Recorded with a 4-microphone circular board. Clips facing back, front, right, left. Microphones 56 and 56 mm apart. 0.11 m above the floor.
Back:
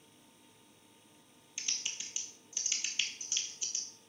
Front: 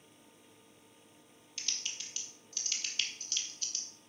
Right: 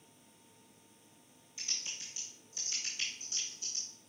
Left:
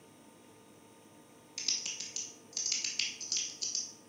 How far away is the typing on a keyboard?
About 1.2 m.